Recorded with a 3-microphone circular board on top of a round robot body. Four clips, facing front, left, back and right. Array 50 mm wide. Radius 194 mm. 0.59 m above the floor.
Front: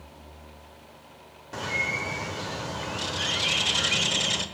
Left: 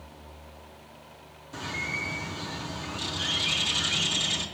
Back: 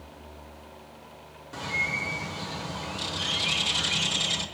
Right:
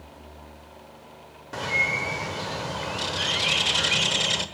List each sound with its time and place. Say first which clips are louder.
1.5 s a bird: right 8 dB, front 1 dB; 70° right, 1.2 m